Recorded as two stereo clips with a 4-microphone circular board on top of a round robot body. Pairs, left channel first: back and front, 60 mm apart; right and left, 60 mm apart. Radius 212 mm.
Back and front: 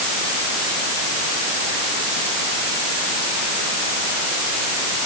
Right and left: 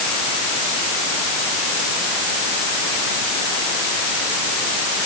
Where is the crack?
No crack in this recording.